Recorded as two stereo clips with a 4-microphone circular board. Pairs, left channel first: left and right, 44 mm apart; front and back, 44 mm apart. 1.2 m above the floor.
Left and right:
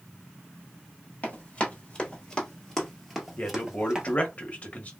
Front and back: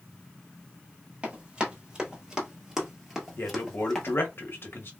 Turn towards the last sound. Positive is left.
turn(degrees=30)